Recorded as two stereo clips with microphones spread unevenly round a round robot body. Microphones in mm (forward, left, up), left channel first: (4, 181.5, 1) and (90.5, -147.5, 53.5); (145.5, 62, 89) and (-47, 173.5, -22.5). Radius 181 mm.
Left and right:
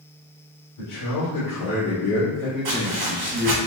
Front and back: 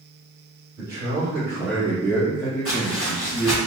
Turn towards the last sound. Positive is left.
turn(degrees=-65)